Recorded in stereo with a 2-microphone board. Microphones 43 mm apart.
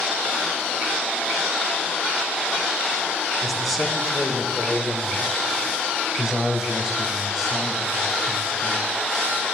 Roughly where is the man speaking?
Centre.